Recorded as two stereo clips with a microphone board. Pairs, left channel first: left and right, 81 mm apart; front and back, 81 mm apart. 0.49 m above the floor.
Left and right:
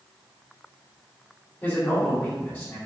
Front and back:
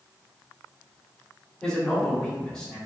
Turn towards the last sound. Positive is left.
turn(degrees=75)